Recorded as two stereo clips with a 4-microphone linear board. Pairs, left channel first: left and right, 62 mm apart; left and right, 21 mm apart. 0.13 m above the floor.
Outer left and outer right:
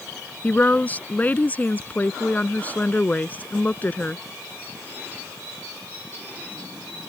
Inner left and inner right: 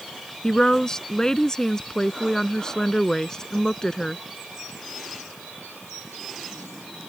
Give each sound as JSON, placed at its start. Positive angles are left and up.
{"t": 0.4, "sound": "a woman speaking", "side_deg": 30}